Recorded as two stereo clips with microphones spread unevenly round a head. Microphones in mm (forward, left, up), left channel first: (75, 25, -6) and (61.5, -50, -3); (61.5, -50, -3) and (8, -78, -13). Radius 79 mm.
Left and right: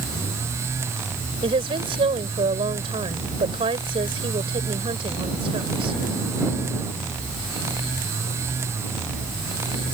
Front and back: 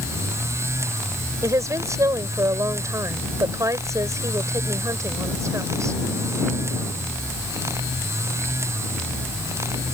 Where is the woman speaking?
115° right.